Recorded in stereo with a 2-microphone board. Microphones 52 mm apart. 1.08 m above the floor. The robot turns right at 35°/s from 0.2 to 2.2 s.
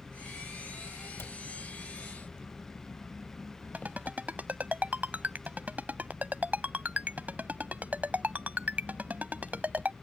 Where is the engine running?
40° right; by 10.0 s 30° left.